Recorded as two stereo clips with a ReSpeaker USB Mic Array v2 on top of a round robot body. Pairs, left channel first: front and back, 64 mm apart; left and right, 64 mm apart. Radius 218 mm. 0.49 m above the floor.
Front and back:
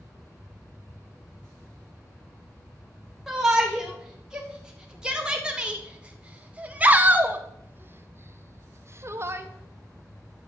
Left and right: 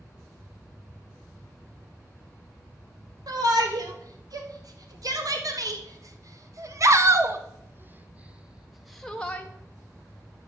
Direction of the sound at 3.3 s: 95° right.